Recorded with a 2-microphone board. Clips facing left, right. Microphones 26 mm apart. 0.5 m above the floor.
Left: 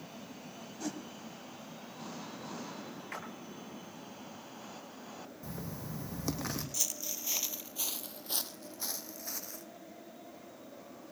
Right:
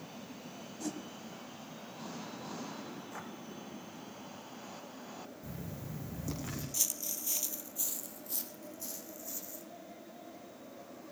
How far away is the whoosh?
About 1.5 m.